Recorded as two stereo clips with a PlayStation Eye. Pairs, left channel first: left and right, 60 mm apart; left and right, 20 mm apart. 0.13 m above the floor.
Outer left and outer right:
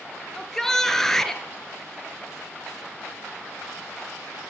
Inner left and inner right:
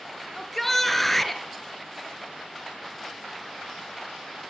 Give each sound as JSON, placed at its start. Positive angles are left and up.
{"t": 0.3, "sound": "a shout", "side_deg": 10, "distance_m": 2.0}